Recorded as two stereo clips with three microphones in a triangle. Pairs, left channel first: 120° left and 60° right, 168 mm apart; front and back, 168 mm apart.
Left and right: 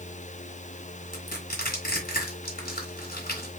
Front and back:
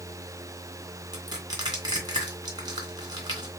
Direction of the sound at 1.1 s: 115° left.